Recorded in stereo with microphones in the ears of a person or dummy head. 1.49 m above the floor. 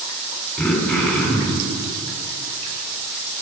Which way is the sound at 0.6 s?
5° left (ahead or behind).